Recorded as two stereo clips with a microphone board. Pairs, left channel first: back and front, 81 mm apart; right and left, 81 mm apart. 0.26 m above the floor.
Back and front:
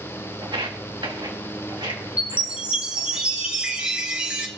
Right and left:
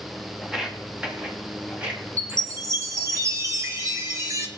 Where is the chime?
70° left, 1.4 m.